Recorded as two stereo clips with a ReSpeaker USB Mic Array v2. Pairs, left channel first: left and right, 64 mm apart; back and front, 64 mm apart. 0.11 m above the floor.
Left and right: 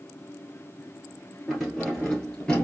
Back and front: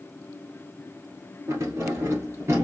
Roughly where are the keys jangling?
Ahead.